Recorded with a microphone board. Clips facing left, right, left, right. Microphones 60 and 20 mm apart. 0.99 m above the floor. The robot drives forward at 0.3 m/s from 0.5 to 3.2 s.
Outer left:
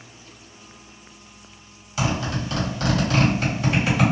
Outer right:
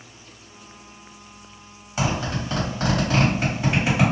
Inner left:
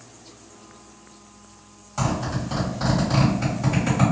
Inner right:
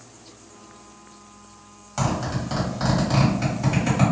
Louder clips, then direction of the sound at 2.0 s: Even, even; 30° right (ahead or behind).